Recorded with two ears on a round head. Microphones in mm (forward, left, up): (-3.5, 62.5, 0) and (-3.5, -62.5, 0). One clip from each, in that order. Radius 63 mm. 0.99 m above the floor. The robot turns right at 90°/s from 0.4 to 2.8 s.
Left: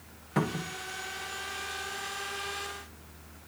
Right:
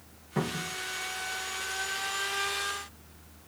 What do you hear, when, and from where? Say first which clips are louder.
0.4 s a cupboard door: left 1 dB; 60° left, 1.2 m; by 0.8 s 90° left, 1.2 m